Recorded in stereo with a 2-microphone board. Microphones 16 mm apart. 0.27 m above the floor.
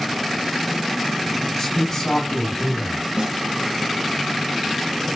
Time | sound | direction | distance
1.6 | a man speaking | 25° left (ahead or behind) | 2.5 m
3.2 | a snare drum | 60° right (ahead or behind) | 0.8 m